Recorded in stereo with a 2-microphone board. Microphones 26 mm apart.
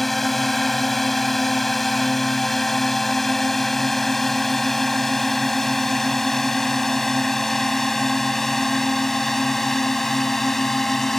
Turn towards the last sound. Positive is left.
turn(degrees=10)  # may be behind; listen again after turning